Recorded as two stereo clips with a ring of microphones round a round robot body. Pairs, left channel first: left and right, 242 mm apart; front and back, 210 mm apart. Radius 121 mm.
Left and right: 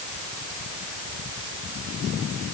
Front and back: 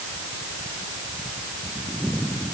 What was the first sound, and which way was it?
Only background noise.